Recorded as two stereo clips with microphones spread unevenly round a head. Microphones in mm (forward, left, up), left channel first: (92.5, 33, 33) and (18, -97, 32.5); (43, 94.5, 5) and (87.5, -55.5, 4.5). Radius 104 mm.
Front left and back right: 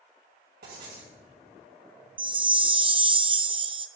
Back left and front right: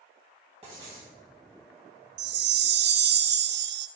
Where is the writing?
130° right, 2.5 m.